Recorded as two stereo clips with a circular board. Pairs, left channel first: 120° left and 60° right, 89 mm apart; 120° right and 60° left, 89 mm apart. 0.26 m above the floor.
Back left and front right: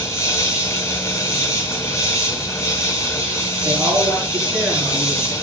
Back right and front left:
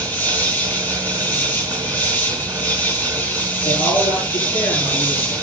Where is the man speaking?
125° right, 7 m.